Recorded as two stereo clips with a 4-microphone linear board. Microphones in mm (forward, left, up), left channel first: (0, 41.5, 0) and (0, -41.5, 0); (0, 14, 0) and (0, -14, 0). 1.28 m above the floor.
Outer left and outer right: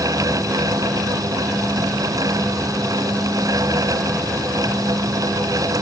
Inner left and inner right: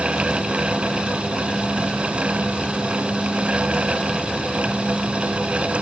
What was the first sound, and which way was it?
Only background noise.